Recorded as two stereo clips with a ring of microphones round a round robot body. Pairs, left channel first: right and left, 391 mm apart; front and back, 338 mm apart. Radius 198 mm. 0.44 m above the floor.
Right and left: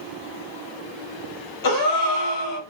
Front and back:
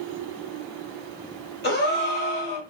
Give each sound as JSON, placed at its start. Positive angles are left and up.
{"t": 1.6, "sound": "a gasp", "azimuth_deg": -60, "distance_m": 1.0}